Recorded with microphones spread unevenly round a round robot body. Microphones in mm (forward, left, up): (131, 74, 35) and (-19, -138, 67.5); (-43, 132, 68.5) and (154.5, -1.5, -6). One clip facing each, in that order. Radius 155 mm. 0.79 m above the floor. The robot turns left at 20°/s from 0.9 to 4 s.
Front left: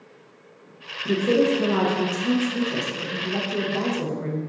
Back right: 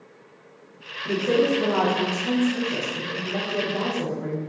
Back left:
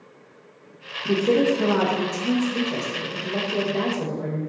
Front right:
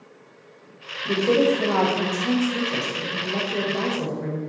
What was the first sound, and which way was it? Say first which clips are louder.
A woman speaking: front left 1 dB, even; 75° left.